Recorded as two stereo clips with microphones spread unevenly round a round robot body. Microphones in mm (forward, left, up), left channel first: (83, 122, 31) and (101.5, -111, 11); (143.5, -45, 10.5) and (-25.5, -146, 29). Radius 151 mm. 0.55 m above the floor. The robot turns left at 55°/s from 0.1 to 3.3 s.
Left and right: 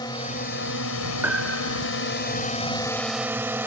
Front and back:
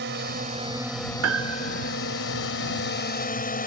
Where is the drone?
170° left; by 3.7 s 5° right.